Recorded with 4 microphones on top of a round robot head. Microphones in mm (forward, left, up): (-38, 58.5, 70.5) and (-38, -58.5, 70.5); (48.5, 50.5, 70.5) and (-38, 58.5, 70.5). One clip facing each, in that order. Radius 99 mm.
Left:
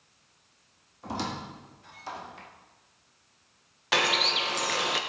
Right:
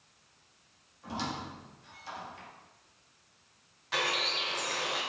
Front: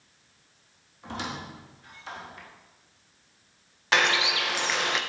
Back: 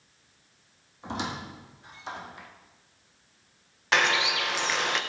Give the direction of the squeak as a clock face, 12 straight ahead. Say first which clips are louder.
Left 3 dB, back 2 dB; 8 o'clock.